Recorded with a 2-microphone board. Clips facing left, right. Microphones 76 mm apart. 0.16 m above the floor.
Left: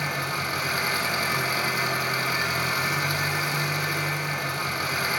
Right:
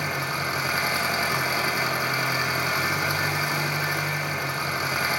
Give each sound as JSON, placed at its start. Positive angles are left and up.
{"t": 0.0, "sound": "an engine running", "side_deg": -20, "distance_m": 2.5}